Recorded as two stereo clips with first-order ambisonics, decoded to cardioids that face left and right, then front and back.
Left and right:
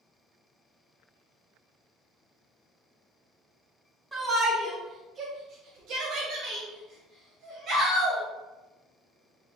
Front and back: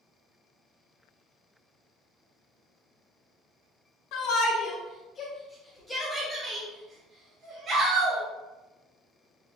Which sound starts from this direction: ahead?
A shout, at 4.1 s.